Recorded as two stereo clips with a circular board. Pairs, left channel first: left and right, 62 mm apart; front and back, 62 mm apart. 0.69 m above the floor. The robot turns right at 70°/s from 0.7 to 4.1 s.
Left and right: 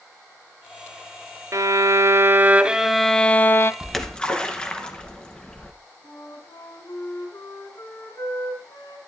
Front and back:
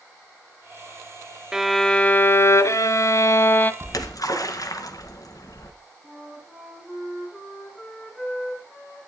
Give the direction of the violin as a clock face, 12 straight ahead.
3 o'clock.